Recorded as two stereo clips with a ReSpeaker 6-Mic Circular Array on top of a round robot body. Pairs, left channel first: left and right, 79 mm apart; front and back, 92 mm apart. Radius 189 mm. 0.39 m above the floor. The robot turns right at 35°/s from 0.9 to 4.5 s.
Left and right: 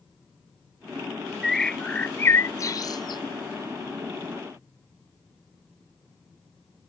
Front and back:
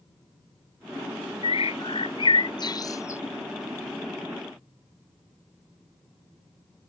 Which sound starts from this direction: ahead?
A bird, at 1.4 s.